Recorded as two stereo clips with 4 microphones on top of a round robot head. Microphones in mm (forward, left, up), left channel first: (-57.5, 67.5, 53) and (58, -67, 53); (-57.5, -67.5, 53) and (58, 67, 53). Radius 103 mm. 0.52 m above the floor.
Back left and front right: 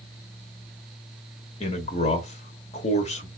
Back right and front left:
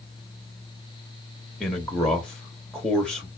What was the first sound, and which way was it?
A man speaking, 145° left.